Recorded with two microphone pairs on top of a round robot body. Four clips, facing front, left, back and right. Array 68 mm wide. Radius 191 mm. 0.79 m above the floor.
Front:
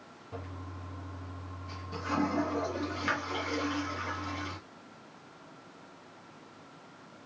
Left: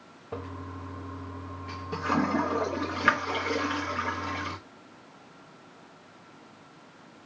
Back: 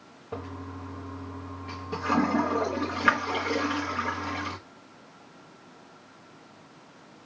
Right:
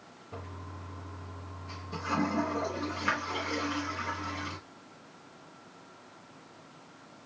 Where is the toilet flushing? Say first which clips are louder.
Left 7 dB, back 7 dB; 130° left, 0.7 m.